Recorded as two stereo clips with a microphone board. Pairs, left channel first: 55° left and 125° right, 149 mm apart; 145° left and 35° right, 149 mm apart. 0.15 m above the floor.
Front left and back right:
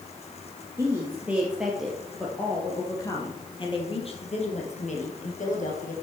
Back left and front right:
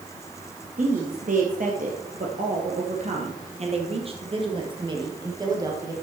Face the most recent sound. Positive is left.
turn(degrees=30)